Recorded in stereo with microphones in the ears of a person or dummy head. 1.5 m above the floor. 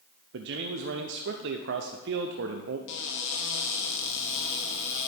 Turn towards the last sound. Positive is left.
turn(degrees=65)  # may be behind; listen again after turning